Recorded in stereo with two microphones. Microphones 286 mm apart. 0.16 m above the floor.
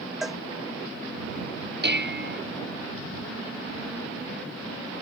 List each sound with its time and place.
0.2 s a cowbell: centre (ahead or behind)
1.8 s dishes clattering: 40° right (ahead or behind)